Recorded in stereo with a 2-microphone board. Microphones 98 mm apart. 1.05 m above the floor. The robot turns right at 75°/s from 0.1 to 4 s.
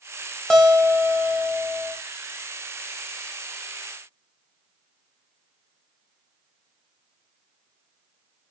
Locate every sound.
0.5 s a guitar: 5° left, 0.8 m; by 1.9 s 115° left, 0.8 m